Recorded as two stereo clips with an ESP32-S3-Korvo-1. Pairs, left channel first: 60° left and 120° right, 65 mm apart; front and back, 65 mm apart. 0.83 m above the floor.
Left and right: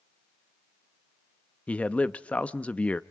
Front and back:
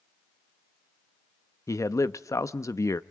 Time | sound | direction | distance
1.7 | a man speaking | 5° right | 0.7 m